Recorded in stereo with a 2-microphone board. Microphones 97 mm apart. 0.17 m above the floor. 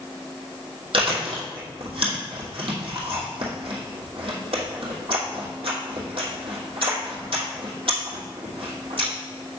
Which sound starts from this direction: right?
Chewing, at 0.9 s.